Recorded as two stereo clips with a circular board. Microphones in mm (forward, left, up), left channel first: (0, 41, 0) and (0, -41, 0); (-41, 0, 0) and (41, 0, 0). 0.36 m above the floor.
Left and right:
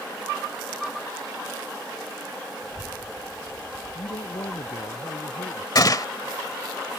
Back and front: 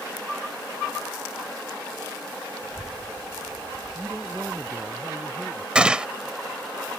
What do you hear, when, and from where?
2.6 s a child speaking: 55° left; by 5.0 s 45° left
4.0 s a man speaking: 80° left
5.8 s a gunshot: 75° left